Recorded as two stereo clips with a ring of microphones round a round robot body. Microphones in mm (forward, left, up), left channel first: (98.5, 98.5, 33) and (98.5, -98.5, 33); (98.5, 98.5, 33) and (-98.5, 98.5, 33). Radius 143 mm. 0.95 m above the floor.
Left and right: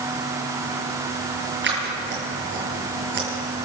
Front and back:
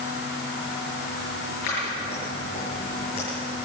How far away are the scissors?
About 6.5 m.